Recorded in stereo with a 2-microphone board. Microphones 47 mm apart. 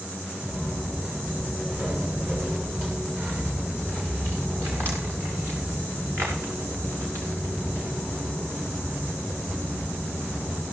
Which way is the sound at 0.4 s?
30° right (ahead or behind).